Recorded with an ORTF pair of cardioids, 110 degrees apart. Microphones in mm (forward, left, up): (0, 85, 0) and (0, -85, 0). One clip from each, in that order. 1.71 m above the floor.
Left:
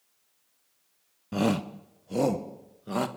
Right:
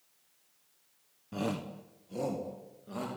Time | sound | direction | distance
1.3 | a shout | 45° left | 1.0 m